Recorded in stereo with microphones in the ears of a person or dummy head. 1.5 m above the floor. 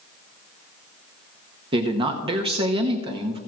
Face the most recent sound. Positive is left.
turn(degrees=-30)  # may be behind; listen again after turning